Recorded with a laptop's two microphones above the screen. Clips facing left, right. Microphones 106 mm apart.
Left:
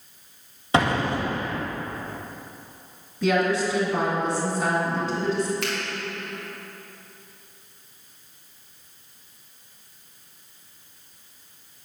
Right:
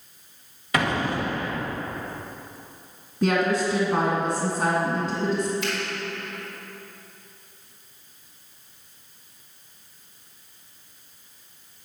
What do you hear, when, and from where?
0.7 s an explosion: 30° left (ahead or behind), 1.2 m
3.2 s a woman speaking: 35° right (ahead or behind), 1.8 m
5.6 s a finger snap: 75° left (ahead or behind), 2 m